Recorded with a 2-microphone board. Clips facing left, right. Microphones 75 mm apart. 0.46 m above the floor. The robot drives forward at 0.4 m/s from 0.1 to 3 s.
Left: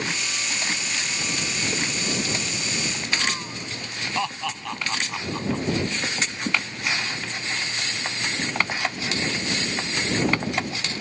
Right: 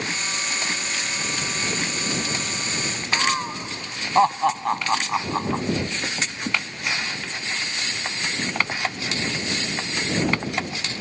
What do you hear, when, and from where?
3.1 s laughter: 40° right (ahead or behind)